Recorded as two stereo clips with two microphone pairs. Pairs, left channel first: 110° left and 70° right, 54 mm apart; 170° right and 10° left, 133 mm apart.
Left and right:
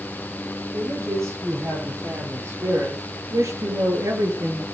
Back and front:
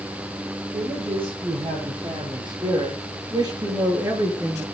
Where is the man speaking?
35° right, 9.5 m; by 4.7 s 65° right, 5 m.